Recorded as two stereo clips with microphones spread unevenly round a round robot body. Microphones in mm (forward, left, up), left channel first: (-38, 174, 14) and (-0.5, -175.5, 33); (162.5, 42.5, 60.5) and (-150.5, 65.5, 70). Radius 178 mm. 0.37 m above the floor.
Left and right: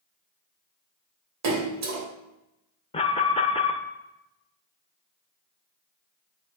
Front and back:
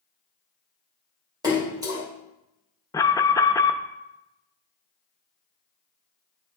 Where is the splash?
110° right, 1.6 m.